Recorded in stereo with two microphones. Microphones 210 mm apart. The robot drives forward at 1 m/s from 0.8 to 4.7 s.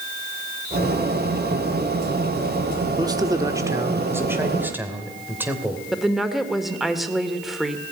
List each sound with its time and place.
3.0 s a man speaking: 20° right (ahead or behind), 1.3 m; by 5.8 s 10° right (ahead or behind), 2.5 m
5.9 s a woman speaking: centre (ahead or behind), 1.9 m